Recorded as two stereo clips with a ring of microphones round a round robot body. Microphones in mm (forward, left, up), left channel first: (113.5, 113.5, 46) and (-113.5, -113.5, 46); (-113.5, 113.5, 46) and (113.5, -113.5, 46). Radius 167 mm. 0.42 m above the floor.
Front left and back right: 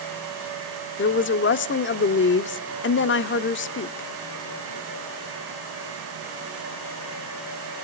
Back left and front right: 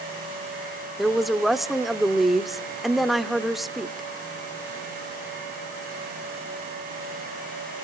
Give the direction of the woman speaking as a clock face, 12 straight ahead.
11 o'clock.